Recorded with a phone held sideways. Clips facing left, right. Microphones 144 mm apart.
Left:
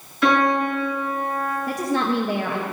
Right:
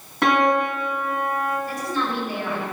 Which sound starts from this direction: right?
A piano, at 0.2 s.